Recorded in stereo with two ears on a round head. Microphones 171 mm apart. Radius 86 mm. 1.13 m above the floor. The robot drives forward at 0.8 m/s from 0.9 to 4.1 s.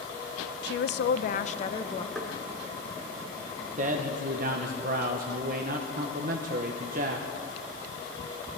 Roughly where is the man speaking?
Right.